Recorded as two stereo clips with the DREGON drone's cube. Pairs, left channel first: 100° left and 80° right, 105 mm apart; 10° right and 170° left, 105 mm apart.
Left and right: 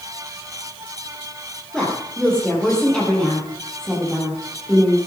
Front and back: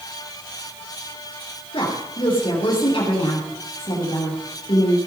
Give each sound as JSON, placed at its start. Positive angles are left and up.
{"t": 1.7, "sound": "a woman speaking", "azimuth_deg": 20, "distance_m": 5.0}